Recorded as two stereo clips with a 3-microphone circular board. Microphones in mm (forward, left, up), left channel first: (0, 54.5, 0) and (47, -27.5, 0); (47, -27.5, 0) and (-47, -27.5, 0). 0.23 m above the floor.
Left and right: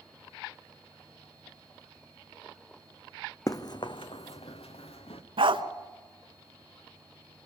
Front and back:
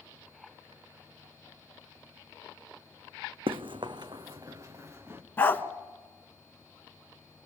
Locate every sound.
3.5 s running footsteps: 170° left, 0.8 m; by 5.2 s 115° left, 1.8 m
5.4 s a dog barking: 70° right, 0.8 m